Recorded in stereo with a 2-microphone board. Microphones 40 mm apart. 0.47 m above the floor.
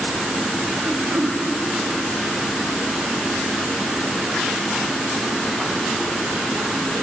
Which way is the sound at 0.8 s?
60° right (ahead or behind).